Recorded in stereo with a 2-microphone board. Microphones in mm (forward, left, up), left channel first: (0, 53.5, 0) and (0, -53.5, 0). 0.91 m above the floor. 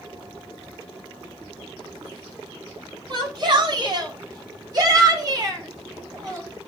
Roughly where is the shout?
Right.